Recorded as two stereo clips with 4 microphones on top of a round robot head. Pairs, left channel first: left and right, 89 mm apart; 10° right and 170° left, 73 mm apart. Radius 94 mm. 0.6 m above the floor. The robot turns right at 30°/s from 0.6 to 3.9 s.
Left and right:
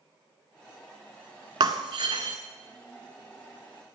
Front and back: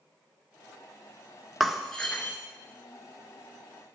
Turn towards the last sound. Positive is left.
turn(degrees=-30)